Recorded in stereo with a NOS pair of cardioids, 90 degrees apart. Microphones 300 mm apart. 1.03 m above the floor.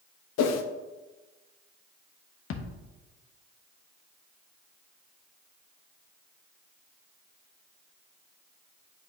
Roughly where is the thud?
Ahead left.